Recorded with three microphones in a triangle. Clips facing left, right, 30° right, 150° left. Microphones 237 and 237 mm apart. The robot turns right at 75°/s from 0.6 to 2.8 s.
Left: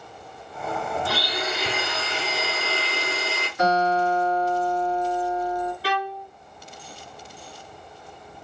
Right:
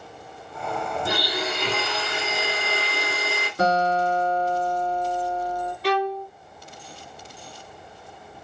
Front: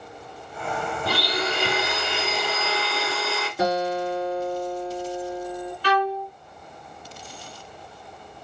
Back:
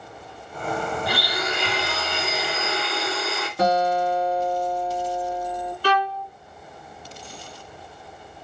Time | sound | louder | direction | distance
1.1 | a blender | right 1 dB, front 1 dB | 30° right | 1.6 m
3.6 | a guitar | even, back 3 dB | 115° right | 2.5 m
5.8 | a violin | right 6 dB, front 1 dB | 175° left | 0.8 m